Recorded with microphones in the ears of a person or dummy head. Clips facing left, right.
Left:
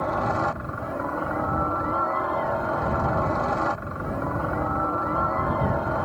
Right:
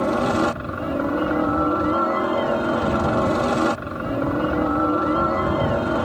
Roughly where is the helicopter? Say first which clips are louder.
Right 6 dB; right.